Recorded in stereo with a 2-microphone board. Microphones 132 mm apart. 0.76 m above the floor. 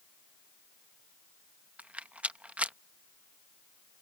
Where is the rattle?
10° right (ahead or behind).